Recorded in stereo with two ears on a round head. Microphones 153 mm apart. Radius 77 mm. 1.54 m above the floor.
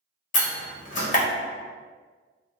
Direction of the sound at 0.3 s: 45° left (ahead or behind).